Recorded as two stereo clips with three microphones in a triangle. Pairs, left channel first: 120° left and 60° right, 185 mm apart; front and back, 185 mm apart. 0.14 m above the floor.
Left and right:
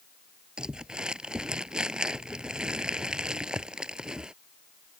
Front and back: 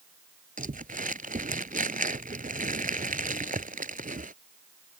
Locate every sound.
0.6 s crumpling: 145° right